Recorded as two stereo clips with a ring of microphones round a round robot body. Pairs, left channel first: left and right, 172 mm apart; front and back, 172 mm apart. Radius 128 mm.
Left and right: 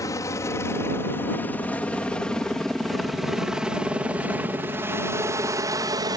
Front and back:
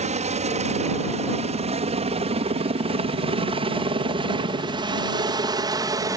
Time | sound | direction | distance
0.0 | a helicopter | 160° left | ?